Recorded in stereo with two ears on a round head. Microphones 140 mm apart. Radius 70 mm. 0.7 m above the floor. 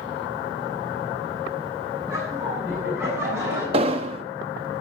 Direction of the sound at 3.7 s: 35° right (ahead or behind).